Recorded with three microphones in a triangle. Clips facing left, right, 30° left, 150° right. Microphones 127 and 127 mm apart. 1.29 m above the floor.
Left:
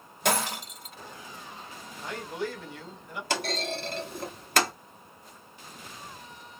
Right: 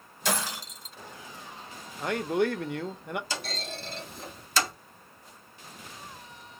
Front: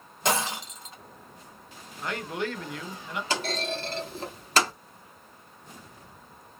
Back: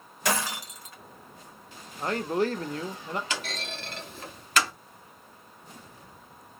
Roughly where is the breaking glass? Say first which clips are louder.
Left 4 dB, front 2 dB; left.